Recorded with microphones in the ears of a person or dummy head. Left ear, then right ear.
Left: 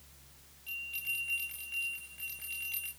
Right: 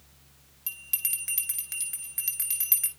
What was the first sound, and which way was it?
A bell, 60° right (ahead or behind).